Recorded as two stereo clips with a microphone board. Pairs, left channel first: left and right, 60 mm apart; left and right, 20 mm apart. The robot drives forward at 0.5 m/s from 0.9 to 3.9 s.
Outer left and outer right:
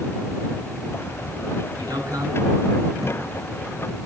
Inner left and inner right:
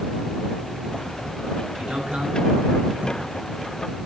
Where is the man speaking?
80° right, 10 m.